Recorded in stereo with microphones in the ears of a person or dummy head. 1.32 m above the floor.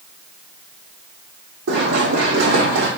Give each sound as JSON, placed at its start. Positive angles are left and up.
{"t": 1.7, "sound": "running footsteps", "side_deg": -65, "distance_m": 3.5}